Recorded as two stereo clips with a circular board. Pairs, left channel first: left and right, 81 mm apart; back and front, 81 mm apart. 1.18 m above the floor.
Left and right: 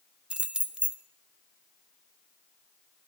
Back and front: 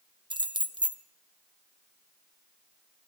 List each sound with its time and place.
0.3 s keys jangling: 15° right, 0.8 m